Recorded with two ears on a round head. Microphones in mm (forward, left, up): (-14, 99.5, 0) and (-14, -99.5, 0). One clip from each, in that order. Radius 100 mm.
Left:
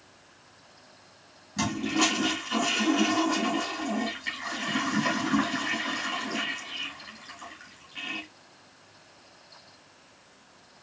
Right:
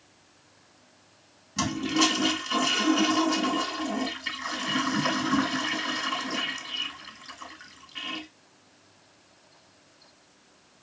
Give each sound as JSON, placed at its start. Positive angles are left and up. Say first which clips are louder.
{"t": 1.6, "sound": "a toilet flushing", "louder": "right 2 dB", "side_deg": -35, "distance_m": 3.5}